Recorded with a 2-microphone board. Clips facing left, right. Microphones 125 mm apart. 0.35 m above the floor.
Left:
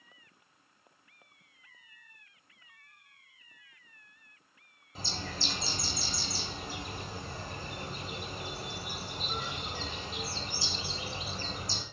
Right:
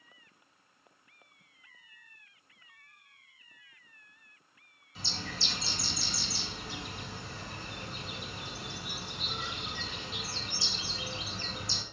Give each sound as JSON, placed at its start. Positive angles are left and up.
{"t": 5.0, "sound": "a bird", "side_deg": 45, "distance_m": 1.7}